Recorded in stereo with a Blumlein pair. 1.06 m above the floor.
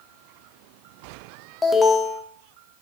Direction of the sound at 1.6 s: 5° left.